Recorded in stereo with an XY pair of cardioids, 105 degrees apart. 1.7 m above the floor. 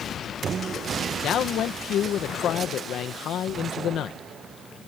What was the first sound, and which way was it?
A man speaking, 65° left.